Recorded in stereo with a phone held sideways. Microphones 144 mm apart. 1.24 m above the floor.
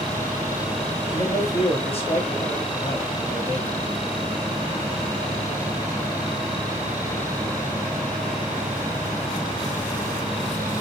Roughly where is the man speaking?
Left.